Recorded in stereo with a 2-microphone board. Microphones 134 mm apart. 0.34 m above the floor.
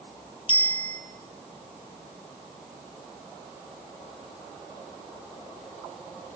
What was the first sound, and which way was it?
A bicycle bell, 40° left (ahead or behind).